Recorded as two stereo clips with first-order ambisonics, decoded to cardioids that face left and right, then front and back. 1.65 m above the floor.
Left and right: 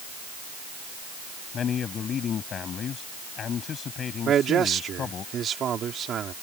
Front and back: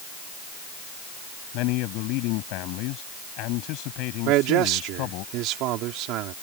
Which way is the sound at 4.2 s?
150° right.